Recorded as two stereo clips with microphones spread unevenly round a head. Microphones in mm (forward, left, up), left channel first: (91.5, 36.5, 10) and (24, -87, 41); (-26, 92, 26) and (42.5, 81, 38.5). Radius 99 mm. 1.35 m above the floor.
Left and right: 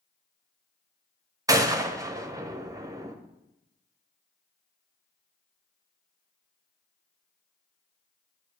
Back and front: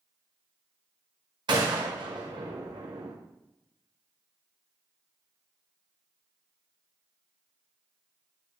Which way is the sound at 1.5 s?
50° right.